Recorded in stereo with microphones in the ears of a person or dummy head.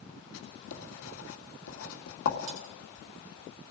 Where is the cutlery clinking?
70° right (ahead or behind), 4.5 m.